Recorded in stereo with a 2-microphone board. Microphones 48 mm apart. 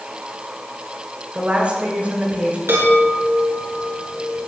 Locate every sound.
1.3 s a woman speaking: 30° right (ahead or behind), 6.5 m
2.7 s a chime: 60° right (ahead or behind), 8.5 m